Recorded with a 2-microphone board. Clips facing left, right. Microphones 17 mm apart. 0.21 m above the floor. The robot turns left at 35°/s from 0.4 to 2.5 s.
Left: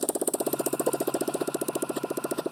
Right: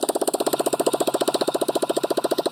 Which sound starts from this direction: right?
A motorcycle, at 0.0 s.